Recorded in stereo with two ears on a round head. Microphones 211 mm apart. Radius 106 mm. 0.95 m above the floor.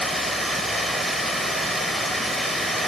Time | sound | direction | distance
0.0 | running water | centre (ahead or behind) | 1.2 m